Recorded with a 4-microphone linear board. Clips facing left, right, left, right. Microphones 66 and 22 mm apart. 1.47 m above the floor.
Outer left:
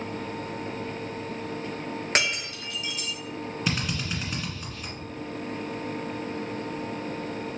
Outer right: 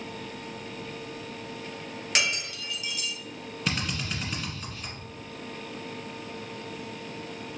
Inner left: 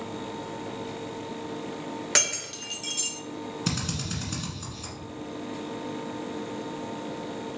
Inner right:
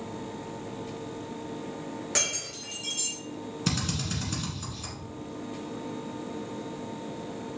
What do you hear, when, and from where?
2.1 s breaking glass: 35° left (ahead or behind), 1.3 m
3.7 s a drill: centre (ahead or behind), 1.4 m